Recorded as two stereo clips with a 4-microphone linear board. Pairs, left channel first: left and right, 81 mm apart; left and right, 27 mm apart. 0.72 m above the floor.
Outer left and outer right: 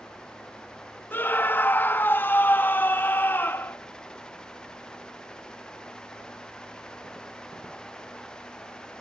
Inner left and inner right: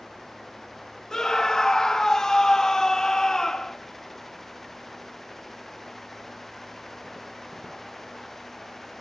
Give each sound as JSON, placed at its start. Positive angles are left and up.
{"t": 1.1, "sound": "a scream", "side_deg": 25, "distance_m": 0.8}